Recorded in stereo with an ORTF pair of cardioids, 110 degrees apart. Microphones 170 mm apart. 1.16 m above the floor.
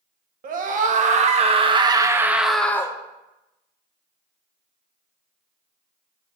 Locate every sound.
0.4 s a scream: 55° right, 1.4 m; by 3.0 s 20° left, 0.8 m